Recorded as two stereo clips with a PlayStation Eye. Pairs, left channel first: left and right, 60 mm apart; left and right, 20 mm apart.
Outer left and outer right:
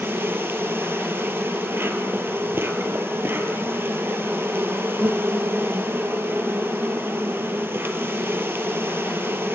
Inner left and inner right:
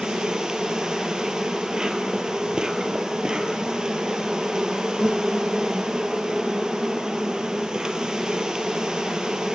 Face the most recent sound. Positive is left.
turn(degrees=-40)  # may be behind; listen again after turning